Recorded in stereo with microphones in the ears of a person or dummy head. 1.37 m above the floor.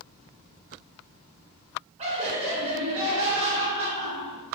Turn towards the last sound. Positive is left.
turn(degrees=-35)  # may be behind; listen again after turning